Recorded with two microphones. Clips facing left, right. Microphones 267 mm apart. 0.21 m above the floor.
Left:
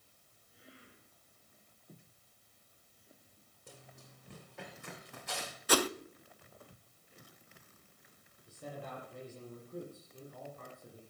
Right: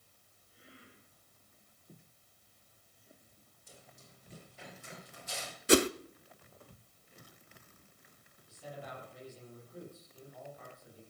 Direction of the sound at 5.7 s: 25° right (ahead or behind).